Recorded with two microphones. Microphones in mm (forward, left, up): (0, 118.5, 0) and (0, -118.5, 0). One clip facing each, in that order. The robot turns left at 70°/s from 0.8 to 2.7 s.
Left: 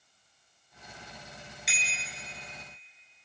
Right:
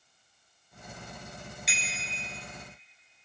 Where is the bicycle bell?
Straight ahead, 6 m; by 2.2 s 40° right, 6 m.